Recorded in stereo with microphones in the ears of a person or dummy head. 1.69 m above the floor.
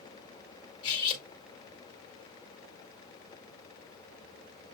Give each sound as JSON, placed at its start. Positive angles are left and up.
{"t": 0.8, "sound": "cutlery clinking", "side_deg": 25, "distance_m": 1.5}